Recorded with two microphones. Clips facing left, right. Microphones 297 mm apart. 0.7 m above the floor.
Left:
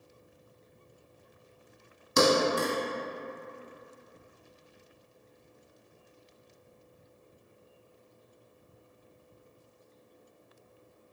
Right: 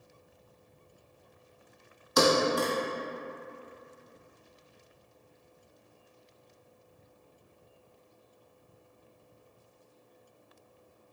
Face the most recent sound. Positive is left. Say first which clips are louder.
# even
turn(degrees=35)  # may be behind; listen again after turning